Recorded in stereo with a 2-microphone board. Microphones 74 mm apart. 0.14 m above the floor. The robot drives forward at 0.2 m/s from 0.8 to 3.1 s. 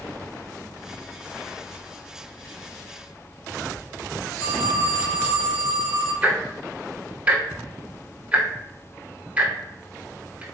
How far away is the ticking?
About 0.6 m.